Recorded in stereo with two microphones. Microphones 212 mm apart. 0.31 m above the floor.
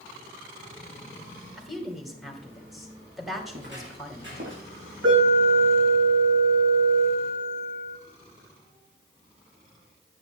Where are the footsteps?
55° right (ahead or behind), 4 m; by 4.6 s 60° right (ahead or behind), 5.5 m.